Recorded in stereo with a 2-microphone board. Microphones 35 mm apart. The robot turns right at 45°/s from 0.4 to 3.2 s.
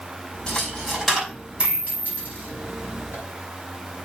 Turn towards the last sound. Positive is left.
turn(degrees=-80)